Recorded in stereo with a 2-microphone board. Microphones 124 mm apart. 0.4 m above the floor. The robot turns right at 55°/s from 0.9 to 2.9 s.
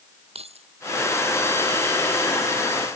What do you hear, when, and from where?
0.3 s keys jangling: 55° right (ahead or behind)